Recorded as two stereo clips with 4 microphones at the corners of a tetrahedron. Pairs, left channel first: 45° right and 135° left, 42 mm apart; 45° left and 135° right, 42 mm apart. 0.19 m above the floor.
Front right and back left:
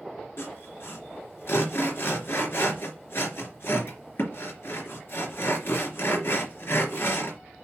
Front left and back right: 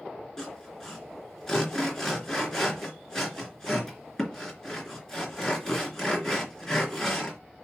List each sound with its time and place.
0.4 s sawing: 30° right, 3 m